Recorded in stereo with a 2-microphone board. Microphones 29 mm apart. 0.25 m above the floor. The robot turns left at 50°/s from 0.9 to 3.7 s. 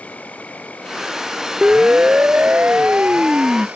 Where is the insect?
60° left; by 3.8 s 80° right.